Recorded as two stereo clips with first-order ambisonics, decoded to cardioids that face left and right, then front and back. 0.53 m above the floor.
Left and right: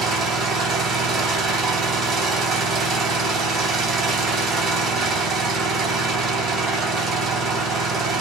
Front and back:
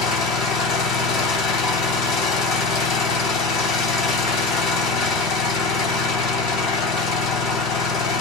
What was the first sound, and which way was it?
An engine running, 30° right.